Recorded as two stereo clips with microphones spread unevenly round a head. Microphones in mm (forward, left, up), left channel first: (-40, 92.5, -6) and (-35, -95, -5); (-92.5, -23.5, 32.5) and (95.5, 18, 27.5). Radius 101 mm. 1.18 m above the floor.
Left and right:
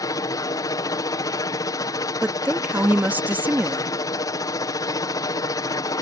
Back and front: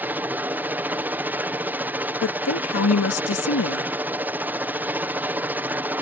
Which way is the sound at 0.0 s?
75° left.